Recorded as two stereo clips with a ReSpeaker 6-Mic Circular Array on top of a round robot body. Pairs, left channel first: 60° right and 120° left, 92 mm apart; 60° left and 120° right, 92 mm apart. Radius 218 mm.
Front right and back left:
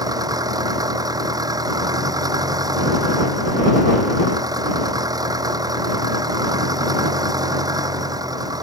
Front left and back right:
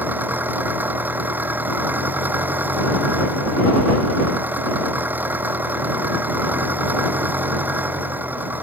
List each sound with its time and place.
0.0 s an engine running: 170° left